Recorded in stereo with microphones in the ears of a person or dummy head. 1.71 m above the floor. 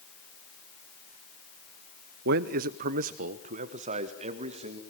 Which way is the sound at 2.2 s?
45° right (ahead or behind).